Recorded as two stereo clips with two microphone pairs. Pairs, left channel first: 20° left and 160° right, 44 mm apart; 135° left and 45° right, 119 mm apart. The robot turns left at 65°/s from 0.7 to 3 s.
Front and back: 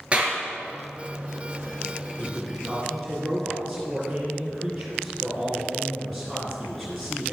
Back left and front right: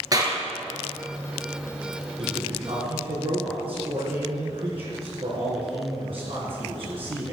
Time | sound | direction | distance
0.1 | a clap | 95° right | 3 m
2.2 | a man speaking | 15° right | 3 m